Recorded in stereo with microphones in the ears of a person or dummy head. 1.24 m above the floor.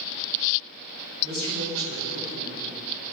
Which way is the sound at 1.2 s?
50° right (ahead or behind).